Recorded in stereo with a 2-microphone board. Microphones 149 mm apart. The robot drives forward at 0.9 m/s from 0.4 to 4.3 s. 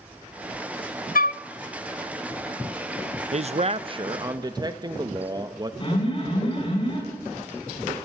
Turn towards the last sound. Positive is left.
turn(degrees=35)  # may be behind; listen again after turning